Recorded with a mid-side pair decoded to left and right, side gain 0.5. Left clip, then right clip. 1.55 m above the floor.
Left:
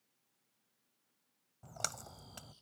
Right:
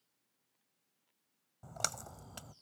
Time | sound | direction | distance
1.6 | a splash | 25° right | 0.5 m